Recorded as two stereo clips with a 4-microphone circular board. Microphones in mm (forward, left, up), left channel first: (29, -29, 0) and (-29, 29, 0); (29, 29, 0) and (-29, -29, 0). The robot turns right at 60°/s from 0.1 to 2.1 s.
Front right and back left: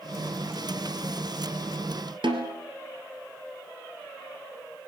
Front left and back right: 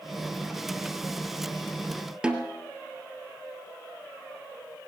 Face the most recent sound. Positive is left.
turn(degrees=145)